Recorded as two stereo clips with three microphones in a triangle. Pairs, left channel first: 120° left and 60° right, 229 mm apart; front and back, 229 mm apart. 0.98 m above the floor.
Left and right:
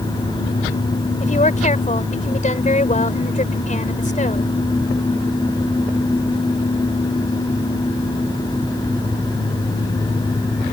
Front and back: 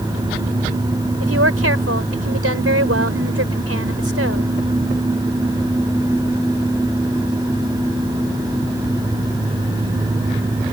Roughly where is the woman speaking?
Behind.